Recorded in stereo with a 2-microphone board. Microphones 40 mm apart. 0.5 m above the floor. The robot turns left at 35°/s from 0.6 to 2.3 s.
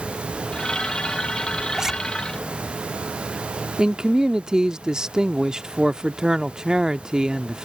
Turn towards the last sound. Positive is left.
turn(degrees=-20)  # may be behind; listen again after turning